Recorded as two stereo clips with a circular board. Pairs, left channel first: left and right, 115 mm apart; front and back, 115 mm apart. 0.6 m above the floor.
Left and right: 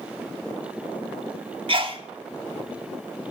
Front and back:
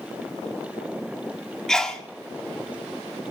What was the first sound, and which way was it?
A sneeze, 85° right.